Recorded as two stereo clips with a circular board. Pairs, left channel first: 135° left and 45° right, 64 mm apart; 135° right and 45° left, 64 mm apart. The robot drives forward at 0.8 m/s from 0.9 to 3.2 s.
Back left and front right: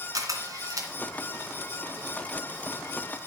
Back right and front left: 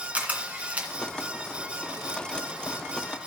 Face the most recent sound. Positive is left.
turn(degrees=-75)